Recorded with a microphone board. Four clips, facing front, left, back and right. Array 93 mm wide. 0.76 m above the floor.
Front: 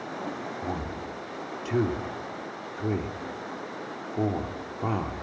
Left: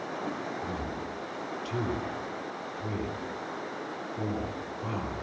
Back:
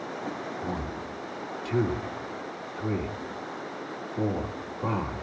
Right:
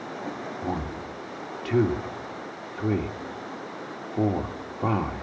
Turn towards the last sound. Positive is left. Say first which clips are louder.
# right 3 dB, even
turn(degrees=-70)